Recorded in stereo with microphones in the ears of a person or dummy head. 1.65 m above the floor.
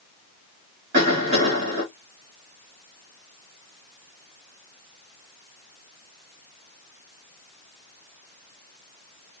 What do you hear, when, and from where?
0.9 s a cough: 50° right (ahead or behind), 2.5 m